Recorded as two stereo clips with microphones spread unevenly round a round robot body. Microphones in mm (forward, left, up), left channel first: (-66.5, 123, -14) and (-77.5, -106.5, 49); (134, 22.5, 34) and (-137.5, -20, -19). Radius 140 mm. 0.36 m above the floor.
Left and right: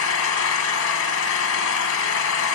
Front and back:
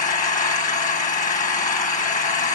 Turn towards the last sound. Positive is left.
turn(degrees=75)